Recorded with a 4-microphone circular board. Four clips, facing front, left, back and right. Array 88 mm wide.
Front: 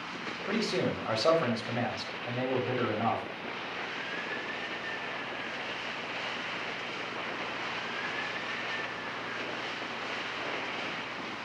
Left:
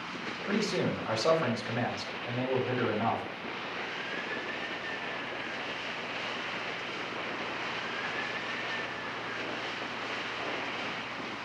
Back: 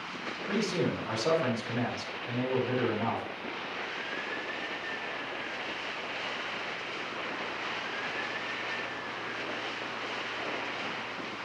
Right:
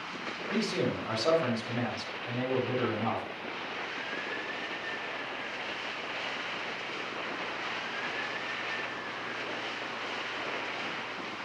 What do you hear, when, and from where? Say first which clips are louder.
0.5 s a man speaking: even, even; 15° left, 4 m